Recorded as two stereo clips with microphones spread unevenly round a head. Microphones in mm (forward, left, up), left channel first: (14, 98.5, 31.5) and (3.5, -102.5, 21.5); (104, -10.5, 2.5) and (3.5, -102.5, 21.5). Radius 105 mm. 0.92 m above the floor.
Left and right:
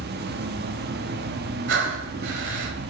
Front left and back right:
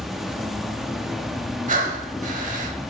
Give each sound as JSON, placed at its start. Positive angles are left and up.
{"t": 0.0, "sound": "an insect", "azimuth_deg": -50, "distance_m": 0.8}
{"t": 1.7, "sound": "breathing", "azimuth_deg": -130, "distance_m": 1.4}